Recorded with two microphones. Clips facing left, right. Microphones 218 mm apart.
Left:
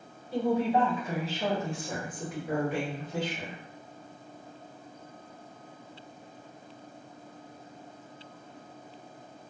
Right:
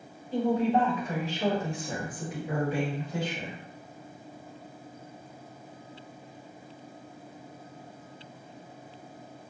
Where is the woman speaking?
10° left (ahead or behind), 1.5 m; by 3.6 s 10° right (ahead or behind), 2 m.